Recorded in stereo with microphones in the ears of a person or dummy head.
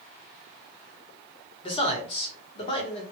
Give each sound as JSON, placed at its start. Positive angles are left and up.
{"t": 1.6, "sound": "a man speaking", "side_deg": 40, "distance_m": 1.2}